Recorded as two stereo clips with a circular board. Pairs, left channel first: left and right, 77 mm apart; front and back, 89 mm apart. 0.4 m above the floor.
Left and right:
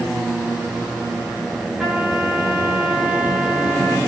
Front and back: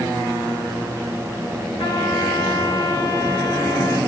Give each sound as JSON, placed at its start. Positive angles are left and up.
{"t": 1.8, "sound": "a trumpet", "azimuth_deg": -5, "distance_m": 3.0}